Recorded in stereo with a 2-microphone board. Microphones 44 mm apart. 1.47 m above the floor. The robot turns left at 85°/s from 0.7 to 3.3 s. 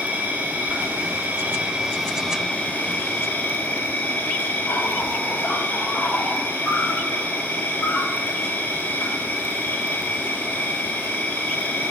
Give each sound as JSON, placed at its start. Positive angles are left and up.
{"t": 0.0, "sound": "an insect", "azimuth_deg": -60, "distance_m": 1.3}